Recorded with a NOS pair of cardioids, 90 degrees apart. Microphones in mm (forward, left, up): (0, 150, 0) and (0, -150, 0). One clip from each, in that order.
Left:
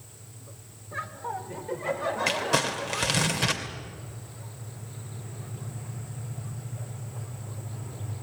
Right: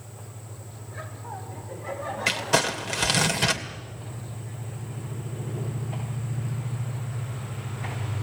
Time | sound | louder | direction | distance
0.9 | laughter | left 5 dB | 50° left | 4 m
2.3 | crumpling | right 4 dB | 20° right | 2.5 m